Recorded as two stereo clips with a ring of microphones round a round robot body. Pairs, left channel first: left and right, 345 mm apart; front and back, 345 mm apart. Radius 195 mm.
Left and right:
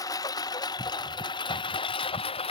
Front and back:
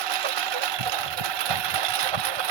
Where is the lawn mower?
170° left; by 2.5 s 165° left.